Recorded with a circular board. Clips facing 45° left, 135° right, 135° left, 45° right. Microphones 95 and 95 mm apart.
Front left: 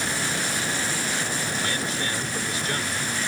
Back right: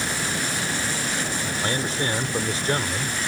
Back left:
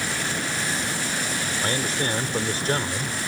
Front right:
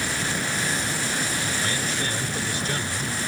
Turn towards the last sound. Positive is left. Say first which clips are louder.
# back right 3 dB, back left 2 dB
turn(degrees=175)